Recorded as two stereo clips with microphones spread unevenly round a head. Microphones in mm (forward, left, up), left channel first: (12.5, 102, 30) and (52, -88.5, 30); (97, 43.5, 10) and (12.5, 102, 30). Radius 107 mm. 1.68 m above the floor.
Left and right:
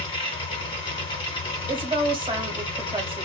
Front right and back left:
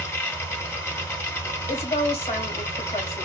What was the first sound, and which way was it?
A machine running, 35° left.